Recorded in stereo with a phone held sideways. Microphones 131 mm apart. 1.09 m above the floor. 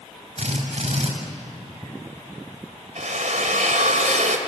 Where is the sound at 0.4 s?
55° right (ahead or behind), 6.5 m.